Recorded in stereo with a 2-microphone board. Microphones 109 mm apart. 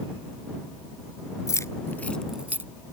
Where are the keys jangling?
30° left (ahead or behind); by 2.7 s 25° right (ahead or behind).